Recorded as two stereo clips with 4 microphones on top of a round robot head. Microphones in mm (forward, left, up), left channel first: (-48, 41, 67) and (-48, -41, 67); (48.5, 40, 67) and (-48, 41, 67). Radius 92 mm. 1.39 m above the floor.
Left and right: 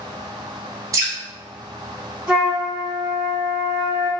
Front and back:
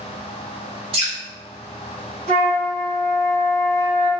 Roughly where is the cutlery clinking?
I don't hear cutlery clinking.